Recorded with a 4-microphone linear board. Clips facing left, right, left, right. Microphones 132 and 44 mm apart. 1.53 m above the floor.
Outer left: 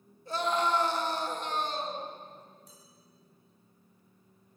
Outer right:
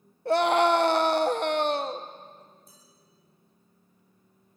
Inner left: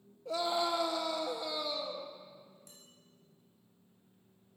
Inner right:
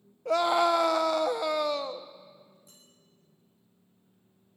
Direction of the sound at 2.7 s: 75° left (ahead or behind).